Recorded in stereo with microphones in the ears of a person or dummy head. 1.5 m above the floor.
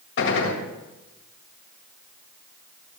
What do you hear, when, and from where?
0.2 s a gunshot: 75° left (ahead or behind), 1.7 m